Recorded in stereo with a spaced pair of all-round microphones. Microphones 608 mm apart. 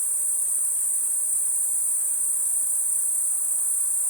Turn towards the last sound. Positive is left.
turn(degrees=-10)  # may be behind; listen again after turning